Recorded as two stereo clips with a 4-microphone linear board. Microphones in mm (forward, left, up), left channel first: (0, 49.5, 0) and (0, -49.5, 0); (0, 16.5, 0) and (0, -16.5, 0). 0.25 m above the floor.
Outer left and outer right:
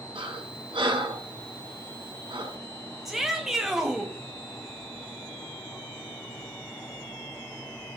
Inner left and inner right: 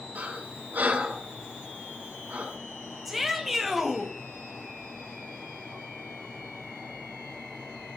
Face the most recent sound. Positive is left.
turn(degrees=0)  # may be behind; listen again after turning